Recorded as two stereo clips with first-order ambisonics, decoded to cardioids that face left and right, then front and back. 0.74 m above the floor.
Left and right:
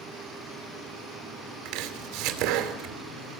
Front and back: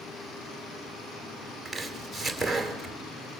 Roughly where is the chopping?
Right.